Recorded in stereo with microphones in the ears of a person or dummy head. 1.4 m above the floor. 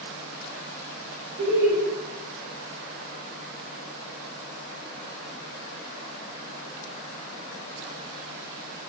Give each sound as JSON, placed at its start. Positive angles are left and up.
{"t": 1.4, "sound": "laughter", "side_deg": -85, "distance_m": 1.6}